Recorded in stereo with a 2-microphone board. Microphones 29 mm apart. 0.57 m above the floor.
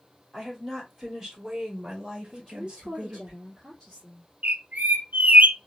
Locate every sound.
0.3 s a woman speaking: 5° left (ahead or behind), 2.5 m; by 3.3 s 35° right (ahead or behind), 2 m
2.3 s a woman speaking: 5° left (ahead or behind), 1.5 m
4.4 s a bird: 65° right (ahead or behind), 0.6 m